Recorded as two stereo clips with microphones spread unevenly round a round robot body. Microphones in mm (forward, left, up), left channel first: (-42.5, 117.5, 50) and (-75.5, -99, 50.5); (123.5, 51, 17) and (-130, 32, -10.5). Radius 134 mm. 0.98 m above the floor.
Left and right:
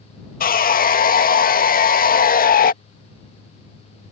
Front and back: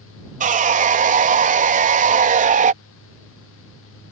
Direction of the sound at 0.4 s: 130° left.